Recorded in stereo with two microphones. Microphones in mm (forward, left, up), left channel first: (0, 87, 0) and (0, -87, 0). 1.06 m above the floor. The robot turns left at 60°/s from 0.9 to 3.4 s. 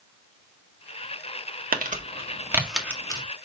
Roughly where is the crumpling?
Right.